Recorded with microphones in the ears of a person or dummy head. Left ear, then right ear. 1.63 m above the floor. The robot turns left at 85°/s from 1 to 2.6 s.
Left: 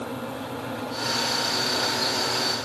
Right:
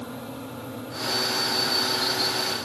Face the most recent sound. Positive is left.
No sound to turn to.